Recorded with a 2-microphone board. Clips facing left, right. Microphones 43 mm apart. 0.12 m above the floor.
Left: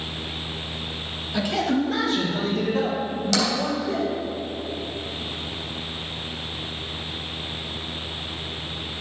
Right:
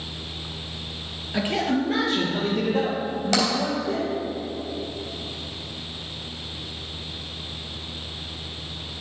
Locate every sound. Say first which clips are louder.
1.3 s a man speaking: even; 30° right (ahead or behind), 2.5 m; by 4.1 s 40° right (ahead or behind), 4.5 m
3.3 s tapping: right 1 dB; 40° right (ahead or behind), 3 m